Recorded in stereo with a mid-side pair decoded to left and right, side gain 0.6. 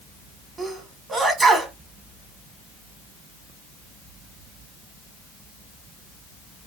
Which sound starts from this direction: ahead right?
A sneeze, at 0.6 s.